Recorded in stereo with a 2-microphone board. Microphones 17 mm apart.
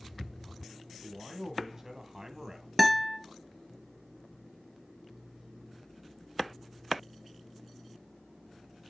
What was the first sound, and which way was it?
A man speaking, 30° right (ahead or behind).